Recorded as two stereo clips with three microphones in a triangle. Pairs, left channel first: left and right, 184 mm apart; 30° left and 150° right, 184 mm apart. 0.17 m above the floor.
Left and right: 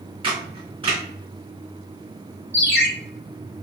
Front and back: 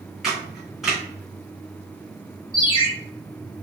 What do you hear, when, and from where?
0.2 s a camera shutter: 60° right, 1.9 m
2.5 s a ringtone: 95° left, 1.1 m